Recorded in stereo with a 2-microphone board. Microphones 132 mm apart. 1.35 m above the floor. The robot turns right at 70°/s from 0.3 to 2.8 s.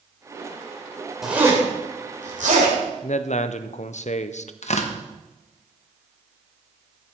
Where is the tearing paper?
60° left (ahead or behind), 0.9 m.